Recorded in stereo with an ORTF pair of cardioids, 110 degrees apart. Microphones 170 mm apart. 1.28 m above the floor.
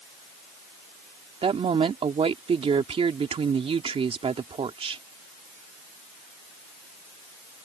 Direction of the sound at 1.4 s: 35° right.